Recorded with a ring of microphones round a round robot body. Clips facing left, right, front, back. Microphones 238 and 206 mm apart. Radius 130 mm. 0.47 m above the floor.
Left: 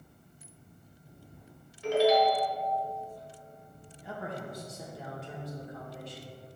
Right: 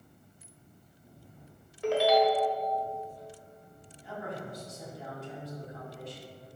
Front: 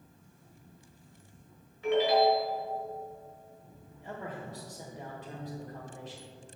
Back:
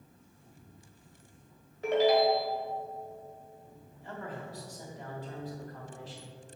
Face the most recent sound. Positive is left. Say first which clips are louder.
# even, front 1 dB
turn(degrees=65)